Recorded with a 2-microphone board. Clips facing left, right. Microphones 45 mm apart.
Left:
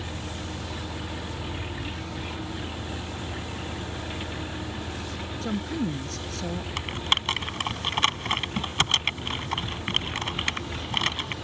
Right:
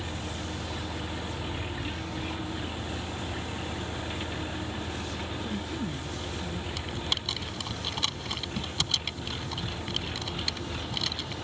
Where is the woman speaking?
80° left.